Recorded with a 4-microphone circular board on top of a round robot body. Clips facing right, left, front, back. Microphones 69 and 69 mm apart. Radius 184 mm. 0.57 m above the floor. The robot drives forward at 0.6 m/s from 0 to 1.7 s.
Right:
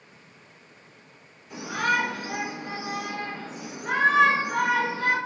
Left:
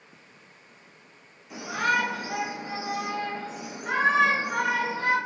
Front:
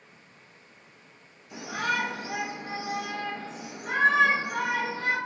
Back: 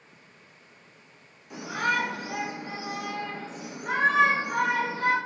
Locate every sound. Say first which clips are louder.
1.5 s a shout: even, back 2 dB; 165° left, 1.8 m; by 5.2 s 170° left, 1.9 m